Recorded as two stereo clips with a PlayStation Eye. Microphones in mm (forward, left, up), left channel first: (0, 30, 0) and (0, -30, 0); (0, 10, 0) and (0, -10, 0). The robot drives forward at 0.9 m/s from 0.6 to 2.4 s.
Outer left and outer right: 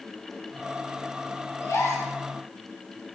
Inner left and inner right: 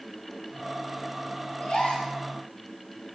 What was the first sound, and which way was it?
A gasp, 65° left (ahead or behind).